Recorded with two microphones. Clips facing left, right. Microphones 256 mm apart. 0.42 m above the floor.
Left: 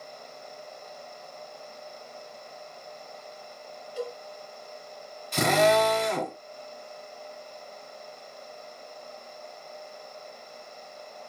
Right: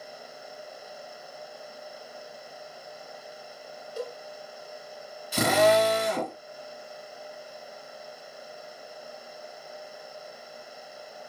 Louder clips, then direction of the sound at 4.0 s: Left 1 dB; 50° right (ahead or behind).